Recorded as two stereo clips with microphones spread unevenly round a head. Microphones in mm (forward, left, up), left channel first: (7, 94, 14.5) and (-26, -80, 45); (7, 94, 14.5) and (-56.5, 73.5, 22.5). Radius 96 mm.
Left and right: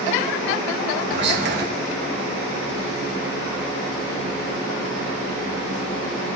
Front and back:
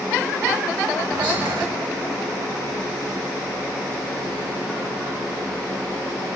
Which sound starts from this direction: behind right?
Whispering, at 1.1 s.